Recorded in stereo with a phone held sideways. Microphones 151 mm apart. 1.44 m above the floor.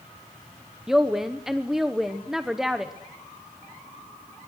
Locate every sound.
0.9 s a woman speaking: 5° right (ahead or behind), 1.0 m